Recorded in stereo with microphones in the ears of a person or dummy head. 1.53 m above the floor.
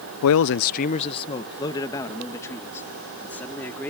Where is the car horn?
I don't hear a car horn.